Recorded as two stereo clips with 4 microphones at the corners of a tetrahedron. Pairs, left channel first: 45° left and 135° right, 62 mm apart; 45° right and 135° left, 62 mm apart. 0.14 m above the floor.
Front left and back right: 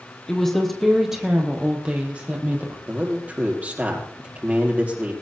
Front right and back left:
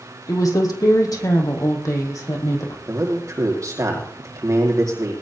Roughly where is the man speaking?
Behind.